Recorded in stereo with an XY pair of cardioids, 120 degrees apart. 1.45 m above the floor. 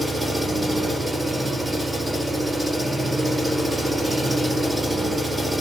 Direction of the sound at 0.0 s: 15° right.